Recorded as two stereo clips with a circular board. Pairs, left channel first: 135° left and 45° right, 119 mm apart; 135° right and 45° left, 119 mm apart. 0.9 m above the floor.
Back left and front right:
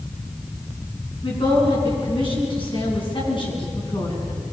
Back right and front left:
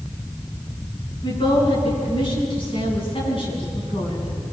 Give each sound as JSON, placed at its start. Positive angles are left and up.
{"t": 1.2, "sound": "a woman speaking", "azimuth_deg": 180, "distance_m": 8.0}